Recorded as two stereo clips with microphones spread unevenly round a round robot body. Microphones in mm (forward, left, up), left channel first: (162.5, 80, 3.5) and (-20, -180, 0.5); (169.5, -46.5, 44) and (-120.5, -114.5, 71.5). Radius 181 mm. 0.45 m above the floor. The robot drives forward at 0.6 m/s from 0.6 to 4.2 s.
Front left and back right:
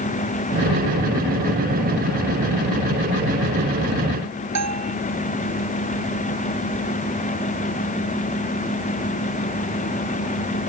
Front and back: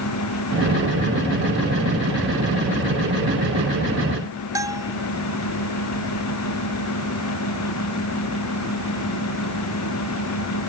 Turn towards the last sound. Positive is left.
turn(degrees=-90)